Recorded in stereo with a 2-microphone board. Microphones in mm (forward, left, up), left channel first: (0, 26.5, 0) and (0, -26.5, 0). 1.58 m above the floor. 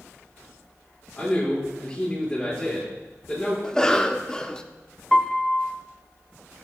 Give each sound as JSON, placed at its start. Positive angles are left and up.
{"t": 1.2, "sound": "a man speaking", "side_deg": 20, "distance_m": 5.0}
{"t": 3.6, "sound": "a cough", "side_deg": 15, "distance_m": 0.8}
{"t": 5.1, "sound": "a piano", "side_deg": 15, "distance_m": 0.5}